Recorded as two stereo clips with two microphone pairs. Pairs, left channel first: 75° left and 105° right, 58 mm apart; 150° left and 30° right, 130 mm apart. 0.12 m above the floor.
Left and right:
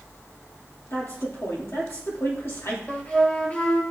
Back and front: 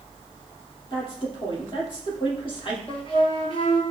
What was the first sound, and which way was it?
A woman speaking, 105° left.